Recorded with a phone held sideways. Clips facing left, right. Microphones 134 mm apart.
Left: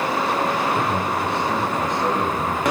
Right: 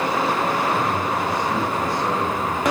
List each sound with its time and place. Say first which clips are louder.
0.8 s a man speaking: even; 25° left (ahead or behind), 9.5 m; by 2.6 s 10° left (ahead or behind), 10 m